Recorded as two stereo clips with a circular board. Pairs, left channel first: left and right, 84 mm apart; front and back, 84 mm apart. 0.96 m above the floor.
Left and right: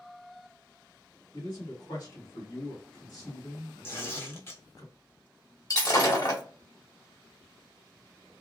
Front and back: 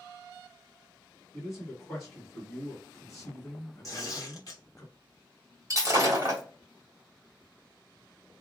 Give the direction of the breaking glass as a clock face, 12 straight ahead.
8 o'clock.